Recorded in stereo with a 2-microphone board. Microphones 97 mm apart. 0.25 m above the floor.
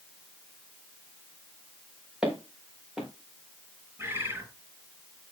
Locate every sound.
2.2 s footsteps: 10° right (ahead or behind), 4.5 m
4.0 s a bird: 20° right (ahead or behind), 4.5 m